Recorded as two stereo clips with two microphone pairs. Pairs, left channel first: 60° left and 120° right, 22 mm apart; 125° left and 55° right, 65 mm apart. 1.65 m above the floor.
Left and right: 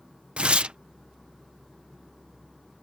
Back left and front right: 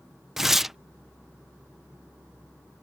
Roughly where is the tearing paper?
Behind right.